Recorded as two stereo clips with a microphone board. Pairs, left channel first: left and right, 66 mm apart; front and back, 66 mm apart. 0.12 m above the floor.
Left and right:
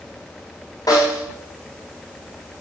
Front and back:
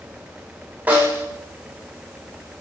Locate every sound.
0.9 s a snare drum: 115° left, 9 m